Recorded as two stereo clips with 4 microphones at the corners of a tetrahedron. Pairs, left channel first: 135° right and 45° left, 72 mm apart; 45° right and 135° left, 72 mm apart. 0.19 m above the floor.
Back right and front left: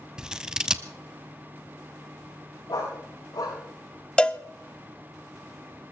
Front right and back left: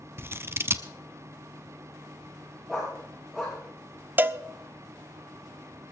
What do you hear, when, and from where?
0.2 s scissors: 120° left, 0.8 m
2.7 s a dog barking: 135° right, 7 m
4.2 s a cowbell: 165° left, 0.7 m